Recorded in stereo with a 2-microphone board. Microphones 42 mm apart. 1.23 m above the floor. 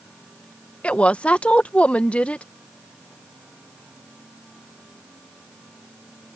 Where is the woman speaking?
30° left (ahead or behind).